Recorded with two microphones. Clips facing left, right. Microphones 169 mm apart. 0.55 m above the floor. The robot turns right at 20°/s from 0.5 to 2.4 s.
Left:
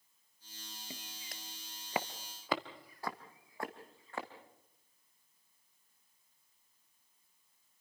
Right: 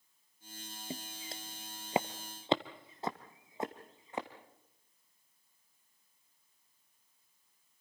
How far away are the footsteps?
About 0.7 m.